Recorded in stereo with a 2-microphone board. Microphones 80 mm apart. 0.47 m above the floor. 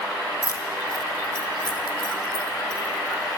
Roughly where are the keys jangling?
Left.